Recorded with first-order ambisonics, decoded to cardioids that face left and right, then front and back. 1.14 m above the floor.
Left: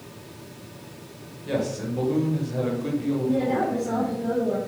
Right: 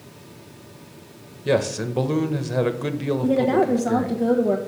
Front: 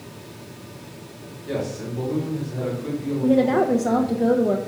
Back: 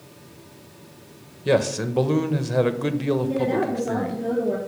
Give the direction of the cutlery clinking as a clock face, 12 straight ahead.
No cutlery clinking in this recording.